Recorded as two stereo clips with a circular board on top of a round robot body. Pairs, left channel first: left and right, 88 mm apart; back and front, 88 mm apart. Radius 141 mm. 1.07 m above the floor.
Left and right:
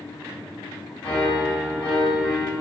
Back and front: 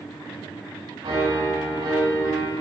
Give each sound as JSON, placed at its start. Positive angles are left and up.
{"t": 1.0, "sound": "a piano", "azimuth_deg": 15, "distance_m": 5.5}